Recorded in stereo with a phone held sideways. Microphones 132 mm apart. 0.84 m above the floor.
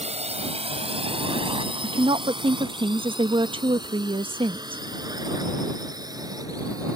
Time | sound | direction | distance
0.0 | a drone | 55° right (ahead or behind) | ?
1.8 | a woman speaking | 40° right (ahead or behind) | ?